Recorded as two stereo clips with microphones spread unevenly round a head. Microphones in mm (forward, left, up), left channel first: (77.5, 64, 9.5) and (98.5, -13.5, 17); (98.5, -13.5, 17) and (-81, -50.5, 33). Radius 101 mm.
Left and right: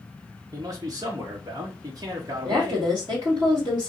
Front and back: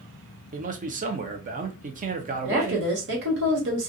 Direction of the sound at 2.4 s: 145° right.